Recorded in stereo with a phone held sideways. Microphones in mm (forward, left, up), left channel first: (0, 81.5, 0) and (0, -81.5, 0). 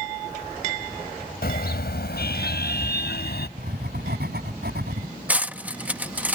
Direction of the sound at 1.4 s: 75° left (ahead or behind).